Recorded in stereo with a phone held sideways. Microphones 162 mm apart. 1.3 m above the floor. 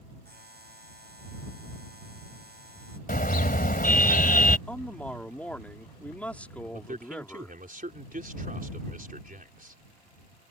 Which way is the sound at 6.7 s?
60° right (ahead or behind).